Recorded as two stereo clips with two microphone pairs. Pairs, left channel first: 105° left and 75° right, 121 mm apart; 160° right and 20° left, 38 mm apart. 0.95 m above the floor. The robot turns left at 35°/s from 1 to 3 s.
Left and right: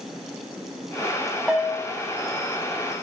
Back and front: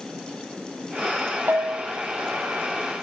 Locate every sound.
1.5 s a bell: 15° left, 1.2 m; by 1.9 s straight ahead, 1.2 m